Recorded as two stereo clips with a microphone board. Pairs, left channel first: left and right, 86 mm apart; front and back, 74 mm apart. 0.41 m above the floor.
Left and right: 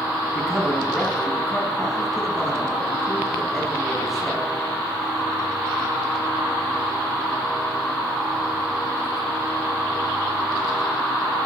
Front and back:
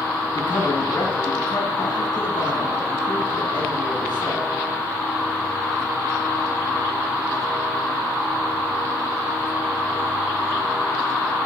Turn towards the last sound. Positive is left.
turn(degrees=0)